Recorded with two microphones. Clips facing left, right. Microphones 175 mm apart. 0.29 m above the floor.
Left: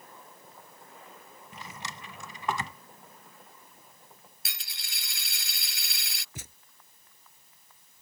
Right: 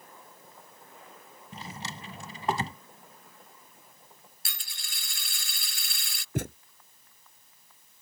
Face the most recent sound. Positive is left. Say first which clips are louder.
# right 18 dB
turn(degrees=-60)  # may be behind; listen again after turning